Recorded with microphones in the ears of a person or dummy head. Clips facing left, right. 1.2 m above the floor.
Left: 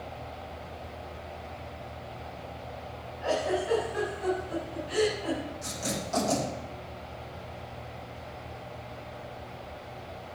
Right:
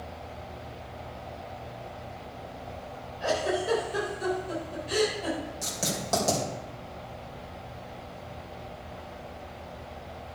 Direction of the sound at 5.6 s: 70° right (ahead or behind).